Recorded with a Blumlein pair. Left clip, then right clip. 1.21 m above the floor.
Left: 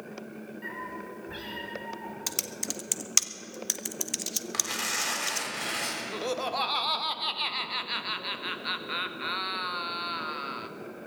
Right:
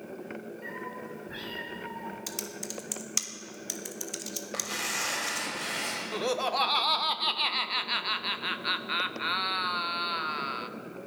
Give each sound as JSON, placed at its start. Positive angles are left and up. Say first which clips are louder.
{"t": 0.6, "sound": "a cat meowing", "louder": "left 3 dB", "azimuth_deg": 15, "distance_m": 5.5}
{"t": 2.3, "sound": "typing on a keyboard", "louder": "left 4 dB", "azimuth_deg": 20, "distance_m": 0.7}
{"t": 4.5, "sound": "tearing paper", "louder": "left 1 dB", "azimuth_deg": 15, "distance_m": 3.0}
{"t": 6.1, "sound": "laughter", "louder": "right 4 dB", "azimuth_deg": -10, "distance_m": 0.8}